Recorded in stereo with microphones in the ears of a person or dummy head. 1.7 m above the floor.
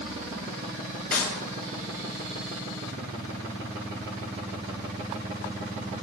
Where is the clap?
10° left (ahead or behind), 5.5 m.